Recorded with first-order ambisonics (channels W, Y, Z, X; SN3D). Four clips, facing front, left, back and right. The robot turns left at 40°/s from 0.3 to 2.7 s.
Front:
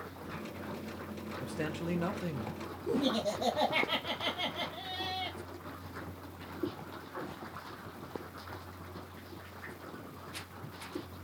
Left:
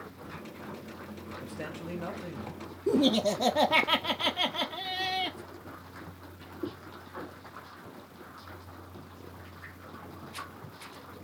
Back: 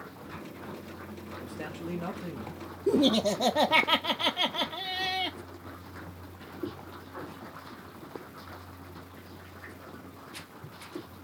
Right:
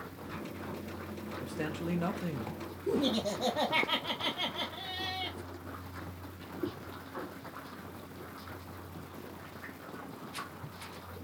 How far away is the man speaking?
About 1.0 m.